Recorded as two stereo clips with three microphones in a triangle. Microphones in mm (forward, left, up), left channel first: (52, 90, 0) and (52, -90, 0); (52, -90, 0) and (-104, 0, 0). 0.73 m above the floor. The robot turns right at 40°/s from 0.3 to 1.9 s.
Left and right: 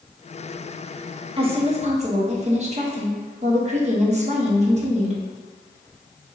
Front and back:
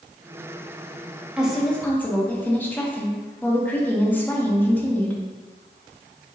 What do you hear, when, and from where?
1.4 s a woman speaking: 130° right, 1.0 m; by 5.2 s 105° right, 1.0 m